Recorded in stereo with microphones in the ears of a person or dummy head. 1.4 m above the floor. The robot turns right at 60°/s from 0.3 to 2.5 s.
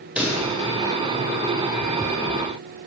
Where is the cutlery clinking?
I don't hear cutlery clinking.